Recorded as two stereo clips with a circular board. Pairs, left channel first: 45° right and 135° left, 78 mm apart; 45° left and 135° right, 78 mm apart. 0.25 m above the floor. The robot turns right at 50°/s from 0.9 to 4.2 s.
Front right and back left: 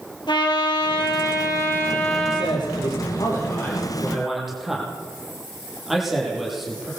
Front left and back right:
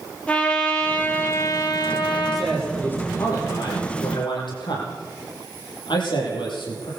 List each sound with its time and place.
0.3 s a trumpet: 25° right, 5.5 m; by 2.5 s 55° left, 5.5 m
2.3 s a man speaking: 45° right, 8.5 m; by 6.9 s 50° left, 8.5 m